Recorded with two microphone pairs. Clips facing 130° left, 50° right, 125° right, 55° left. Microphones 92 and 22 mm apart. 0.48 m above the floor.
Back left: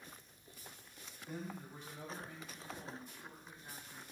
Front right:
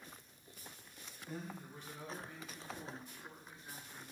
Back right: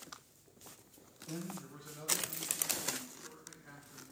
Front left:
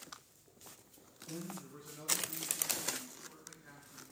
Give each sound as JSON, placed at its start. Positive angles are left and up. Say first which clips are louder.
{"t": 1.3, "sound": "a man speaking", "louder": "back left 1 dB, back right 1 dB", "azimuth_deg": -160, "distance_m": 2.5}